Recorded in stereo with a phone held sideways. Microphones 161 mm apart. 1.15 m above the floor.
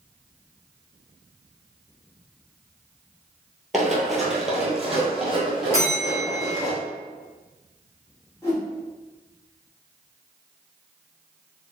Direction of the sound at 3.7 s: Centre (ahead or behind).